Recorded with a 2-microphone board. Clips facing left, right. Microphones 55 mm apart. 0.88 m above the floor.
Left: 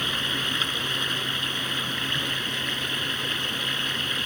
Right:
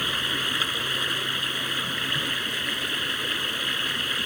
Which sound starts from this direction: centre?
Running water, at 0.0 s.